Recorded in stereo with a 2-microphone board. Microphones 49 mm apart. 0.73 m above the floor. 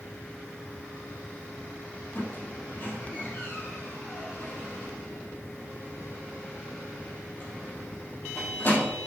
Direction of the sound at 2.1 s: 45° left (ahead or behind).